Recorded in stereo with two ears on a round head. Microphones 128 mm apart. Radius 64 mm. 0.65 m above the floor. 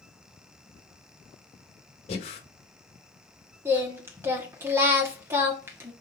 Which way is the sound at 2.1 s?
45° left (ahead or behind).